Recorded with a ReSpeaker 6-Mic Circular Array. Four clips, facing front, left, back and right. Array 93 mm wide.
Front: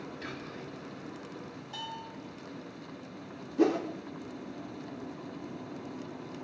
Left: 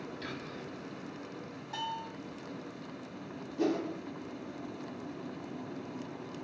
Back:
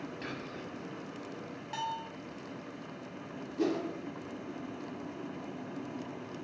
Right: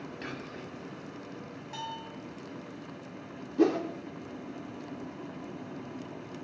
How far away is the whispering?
About 1.5 m.